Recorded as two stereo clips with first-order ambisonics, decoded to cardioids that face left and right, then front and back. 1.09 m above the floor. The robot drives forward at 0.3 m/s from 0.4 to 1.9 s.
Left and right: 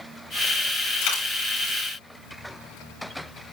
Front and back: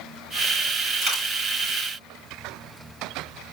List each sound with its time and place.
1.0 s a dropped coin: 115° left, 5.5 m